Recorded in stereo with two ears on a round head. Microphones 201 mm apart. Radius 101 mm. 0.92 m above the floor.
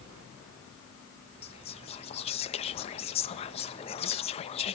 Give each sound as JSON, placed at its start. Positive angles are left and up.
{"t": 1.4, "sound": "whispering", "side_deg": 25, "distance_m": 0.7}